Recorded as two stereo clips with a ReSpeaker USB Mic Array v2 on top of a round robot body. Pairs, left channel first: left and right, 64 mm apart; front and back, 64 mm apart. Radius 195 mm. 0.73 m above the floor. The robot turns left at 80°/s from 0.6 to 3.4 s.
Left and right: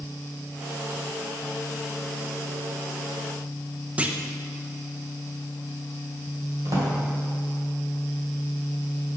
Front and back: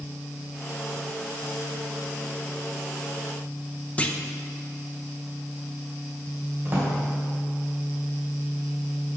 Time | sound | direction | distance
4.0 | a clunk | 45° right | 1.0 m
6.7 | a drawer | 120° right | 2.5 m